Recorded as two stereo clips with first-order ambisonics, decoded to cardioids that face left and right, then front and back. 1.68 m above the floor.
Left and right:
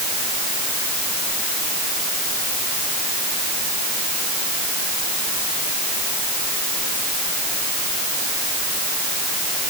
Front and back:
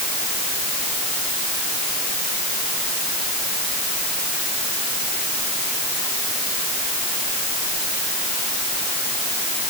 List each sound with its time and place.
Only background noise.